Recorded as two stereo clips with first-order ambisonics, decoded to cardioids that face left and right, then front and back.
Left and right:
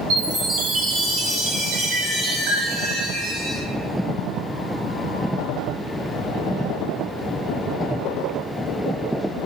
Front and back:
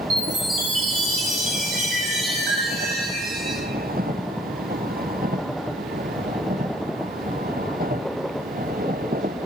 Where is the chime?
130° right, 0.7 m.